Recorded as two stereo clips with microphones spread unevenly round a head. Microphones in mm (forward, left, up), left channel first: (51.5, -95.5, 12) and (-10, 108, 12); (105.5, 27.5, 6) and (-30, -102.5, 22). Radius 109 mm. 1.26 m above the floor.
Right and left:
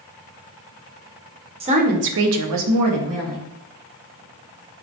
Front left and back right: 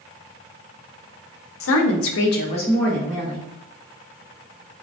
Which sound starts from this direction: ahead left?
A woman speaking, at 1.6 s.